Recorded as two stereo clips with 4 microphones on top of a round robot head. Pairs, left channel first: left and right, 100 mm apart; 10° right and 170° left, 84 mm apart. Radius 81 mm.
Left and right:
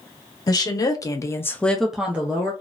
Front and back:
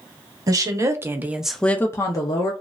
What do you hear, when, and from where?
0.5 s a woman speaking: 135° left, 1.0 m; by 2.5 s 25° right, 0.8 m